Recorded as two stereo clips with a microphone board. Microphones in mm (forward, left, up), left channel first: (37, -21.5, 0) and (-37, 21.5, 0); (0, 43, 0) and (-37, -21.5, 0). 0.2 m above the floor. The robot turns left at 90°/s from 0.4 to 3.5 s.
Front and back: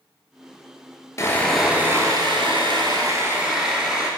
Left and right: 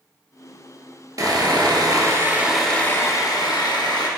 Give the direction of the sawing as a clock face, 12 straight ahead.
3 o'clock.